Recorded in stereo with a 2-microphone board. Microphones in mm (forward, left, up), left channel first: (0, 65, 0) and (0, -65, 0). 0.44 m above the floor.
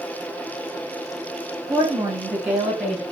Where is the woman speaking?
20° right (ahead or behind), 3.5 m; by 3.0 s 5° right (ahead or behind), 4 m.